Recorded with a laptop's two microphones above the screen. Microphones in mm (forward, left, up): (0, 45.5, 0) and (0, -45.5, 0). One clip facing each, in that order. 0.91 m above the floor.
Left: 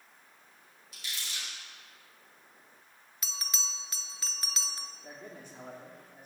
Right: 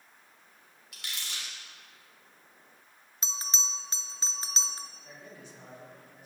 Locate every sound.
0.9 s crumpling: 75° right (ahead or behind), 3.5 m
3.2 s a bell: 25° right (ahead or behind), 0.6 m
5.0 s a man speaking: 50° left (ahead or behind), 1.9 m